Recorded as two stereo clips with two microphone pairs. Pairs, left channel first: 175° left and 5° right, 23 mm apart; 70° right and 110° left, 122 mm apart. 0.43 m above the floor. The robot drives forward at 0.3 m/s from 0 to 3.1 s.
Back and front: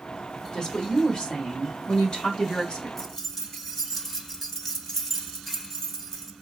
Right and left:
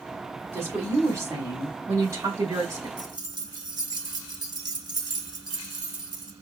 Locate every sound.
0.5 s a woman speaking: 160° left, 1.6 m; by 2.9 s 170° left, 2 m
3.0 s keys jangling: 105° left, 0.9 m; by 6.3 s 110° left, 0.9 m